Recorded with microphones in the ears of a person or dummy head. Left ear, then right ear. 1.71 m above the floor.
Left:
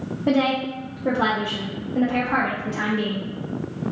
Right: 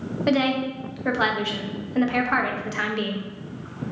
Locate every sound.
0.3 s a woman speaking: 55° right (ahead or behind), 0.7 m